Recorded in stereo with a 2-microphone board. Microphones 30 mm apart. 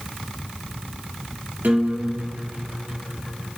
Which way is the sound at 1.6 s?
70° right (ahead or behind).